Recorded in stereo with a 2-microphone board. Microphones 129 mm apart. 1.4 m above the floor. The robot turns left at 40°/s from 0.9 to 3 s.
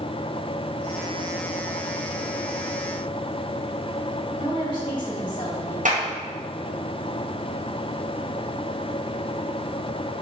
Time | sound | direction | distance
4.4 | a woman speaking | 40° left (ahead or behind) | 3 m
5.8 | a clap | 80° right | 1.5 m